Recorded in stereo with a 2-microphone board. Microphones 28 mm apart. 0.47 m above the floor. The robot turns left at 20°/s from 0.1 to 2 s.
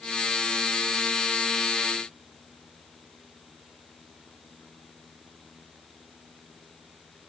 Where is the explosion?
I don't hear an explosion.